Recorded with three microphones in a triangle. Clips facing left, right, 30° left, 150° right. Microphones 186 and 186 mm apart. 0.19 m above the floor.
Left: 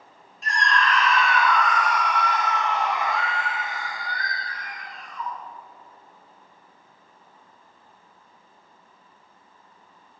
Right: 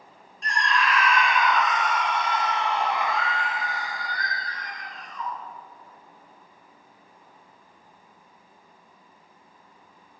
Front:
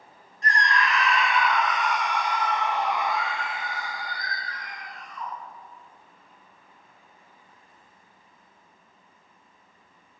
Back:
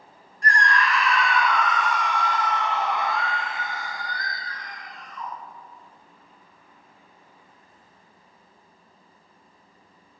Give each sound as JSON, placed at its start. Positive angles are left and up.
{"t": 0.4, "sound": "a scream", "azimuth_deg": 5, "distance_m": 1.2}